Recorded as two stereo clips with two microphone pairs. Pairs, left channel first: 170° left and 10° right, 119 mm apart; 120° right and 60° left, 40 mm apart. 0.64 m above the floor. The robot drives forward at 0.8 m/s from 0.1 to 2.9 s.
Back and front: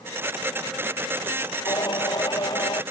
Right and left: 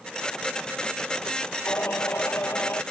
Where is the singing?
135° right; by 2.8 s 140° right.